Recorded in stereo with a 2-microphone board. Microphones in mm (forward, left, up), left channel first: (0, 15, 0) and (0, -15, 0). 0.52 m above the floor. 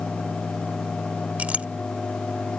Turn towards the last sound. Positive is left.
turn(degrees=-55)  # may be behind; listen again after turning